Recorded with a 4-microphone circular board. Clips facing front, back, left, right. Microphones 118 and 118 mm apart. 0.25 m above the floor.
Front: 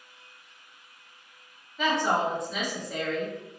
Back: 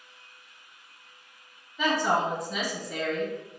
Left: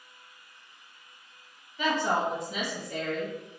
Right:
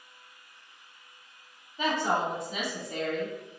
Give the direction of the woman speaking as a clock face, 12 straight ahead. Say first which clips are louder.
Even, left 1 dB; 3 o'clock.